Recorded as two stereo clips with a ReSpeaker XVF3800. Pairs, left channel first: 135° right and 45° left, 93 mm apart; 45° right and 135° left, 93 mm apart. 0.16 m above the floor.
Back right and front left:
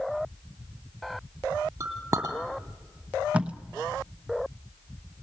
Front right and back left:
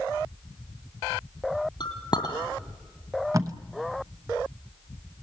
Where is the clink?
15° right, 2.5 m.